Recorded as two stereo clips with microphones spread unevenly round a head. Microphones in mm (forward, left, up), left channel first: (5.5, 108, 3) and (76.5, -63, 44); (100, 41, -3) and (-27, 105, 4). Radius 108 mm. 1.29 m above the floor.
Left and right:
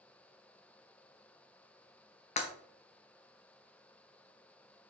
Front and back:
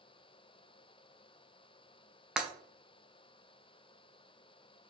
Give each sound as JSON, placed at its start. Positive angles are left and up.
{"t": 2.4, "sound": "breaking glass", "azimuth_deg": 85, "distance_m": 0.5}